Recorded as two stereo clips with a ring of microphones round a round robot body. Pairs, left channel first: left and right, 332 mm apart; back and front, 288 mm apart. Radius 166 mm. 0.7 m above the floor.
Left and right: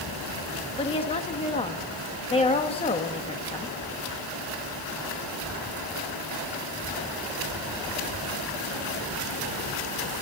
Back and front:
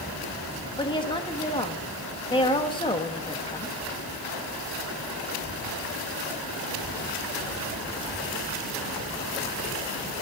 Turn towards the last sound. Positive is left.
turn(degrees=135)